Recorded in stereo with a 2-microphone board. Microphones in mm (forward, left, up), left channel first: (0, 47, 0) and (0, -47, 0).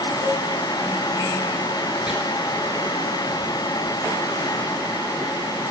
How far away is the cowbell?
About 2.5 m.